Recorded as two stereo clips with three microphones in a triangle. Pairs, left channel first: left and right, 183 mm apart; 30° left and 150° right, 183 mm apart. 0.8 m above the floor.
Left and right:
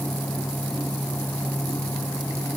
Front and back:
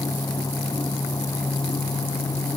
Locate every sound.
Only background noise.